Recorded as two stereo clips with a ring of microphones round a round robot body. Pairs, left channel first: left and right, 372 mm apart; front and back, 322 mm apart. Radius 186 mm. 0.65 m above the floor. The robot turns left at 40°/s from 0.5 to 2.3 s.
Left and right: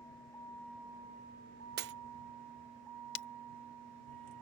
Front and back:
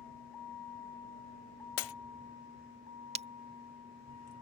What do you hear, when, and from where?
0.0 s a vehicle: 5° left; by 4.4 s 50° right
1.8 s breaking glass: 25° right; by 1.9 s 30° right
3.1 s breaking glass: 110° left